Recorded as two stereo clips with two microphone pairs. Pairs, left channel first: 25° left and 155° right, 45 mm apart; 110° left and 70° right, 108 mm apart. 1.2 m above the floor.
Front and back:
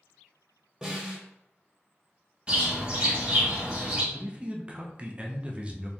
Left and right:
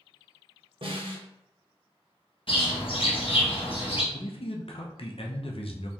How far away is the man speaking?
About 0.6 m.